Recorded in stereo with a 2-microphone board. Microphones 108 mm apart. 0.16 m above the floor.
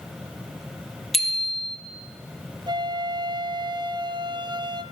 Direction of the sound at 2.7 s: 45° right (ahead or behind).